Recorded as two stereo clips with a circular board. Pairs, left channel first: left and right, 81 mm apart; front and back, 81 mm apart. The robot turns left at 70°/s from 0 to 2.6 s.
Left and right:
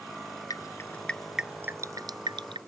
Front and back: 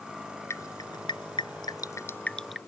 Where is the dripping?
55° left; by 2.6 s 90° right.